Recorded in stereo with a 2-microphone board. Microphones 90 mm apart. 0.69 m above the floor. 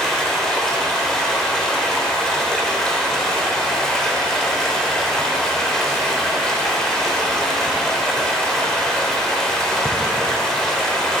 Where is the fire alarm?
I don't hear a fire alarm.